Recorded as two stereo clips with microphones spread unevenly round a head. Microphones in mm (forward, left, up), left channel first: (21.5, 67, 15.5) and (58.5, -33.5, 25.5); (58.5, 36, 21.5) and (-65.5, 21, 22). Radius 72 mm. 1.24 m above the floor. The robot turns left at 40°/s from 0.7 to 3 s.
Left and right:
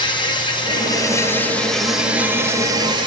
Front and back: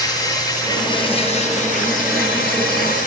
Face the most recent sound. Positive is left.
turn(degrees=-25)